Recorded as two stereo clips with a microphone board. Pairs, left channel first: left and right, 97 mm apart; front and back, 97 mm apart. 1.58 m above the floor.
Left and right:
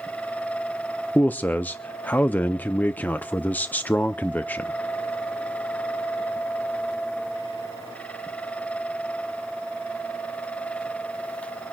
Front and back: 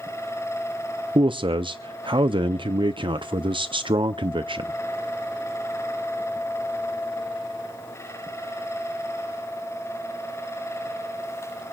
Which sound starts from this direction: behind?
A man speaking, at 1.1 s.